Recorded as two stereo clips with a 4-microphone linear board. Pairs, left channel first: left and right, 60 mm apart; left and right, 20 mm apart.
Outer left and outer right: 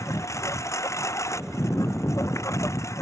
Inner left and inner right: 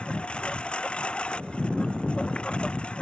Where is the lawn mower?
60° left (ahead or behind).